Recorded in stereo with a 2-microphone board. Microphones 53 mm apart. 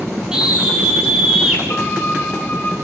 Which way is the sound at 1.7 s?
35° left (ahead or behind).